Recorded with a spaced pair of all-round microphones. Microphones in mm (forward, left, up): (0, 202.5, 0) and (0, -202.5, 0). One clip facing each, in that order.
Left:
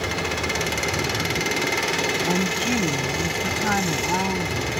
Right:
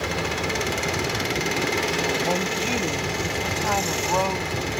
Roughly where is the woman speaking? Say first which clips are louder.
Left 2 dB; left.